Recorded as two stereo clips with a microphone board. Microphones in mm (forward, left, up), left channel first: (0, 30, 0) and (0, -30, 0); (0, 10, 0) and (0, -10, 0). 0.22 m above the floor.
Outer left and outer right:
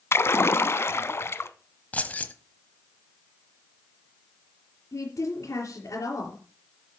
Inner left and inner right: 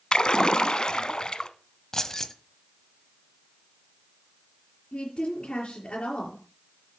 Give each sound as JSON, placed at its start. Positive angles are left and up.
{"t": 0.1, "sound": "a splash", "side_deg": 45, "distance_m": 0.7}
{"t": 1.9, "sound": "keys jangling", "side_deg": 25, "distance_m": 1.0}
{"t": 4.9, "sound": "a woman speaking", "side_deg": 65, "distance_m": 4.5}